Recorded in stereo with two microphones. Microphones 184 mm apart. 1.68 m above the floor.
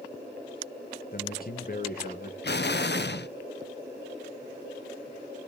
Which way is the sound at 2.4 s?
65° left (ahead or behind).